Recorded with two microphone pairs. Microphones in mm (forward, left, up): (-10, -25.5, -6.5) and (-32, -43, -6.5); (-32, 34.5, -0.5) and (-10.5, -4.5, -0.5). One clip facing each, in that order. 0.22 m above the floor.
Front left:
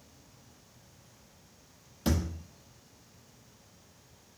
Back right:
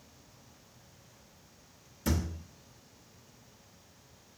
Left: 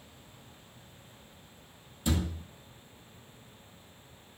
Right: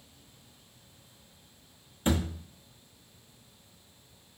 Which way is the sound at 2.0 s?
10° right.